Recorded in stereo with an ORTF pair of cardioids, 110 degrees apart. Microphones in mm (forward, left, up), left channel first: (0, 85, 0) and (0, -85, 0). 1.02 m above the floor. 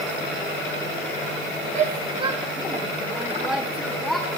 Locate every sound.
1.8 s a shout: 50° right, 0.8 m; by 4.3 s 5° left, 1.7 m